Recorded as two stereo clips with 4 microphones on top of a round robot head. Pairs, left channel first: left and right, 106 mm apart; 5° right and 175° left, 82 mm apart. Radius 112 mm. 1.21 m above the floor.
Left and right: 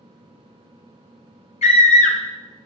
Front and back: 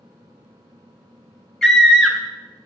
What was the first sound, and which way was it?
A scream, 80° left.